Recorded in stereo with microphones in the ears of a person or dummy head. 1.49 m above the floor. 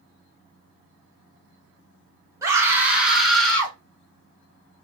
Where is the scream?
15° right (ahead or behind), 2 m; by 3.8 s 15° left (ahead or behind), 2.5 m.